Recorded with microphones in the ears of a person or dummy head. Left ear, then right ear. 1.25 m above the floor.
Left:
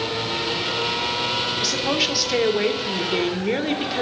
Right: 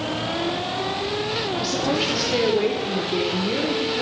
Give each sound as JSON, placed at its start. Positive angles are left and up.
{"t": 1.6, "sound": "a woman speaking", "side_deg": 30, "distance_m": 1.1}